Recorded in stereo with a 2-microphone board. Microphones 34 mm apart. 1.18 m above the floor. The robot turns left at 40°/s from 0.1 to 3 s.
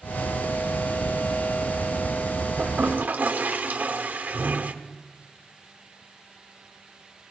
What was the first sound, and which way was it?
A toilet flushing, 55° right (ahead or behind).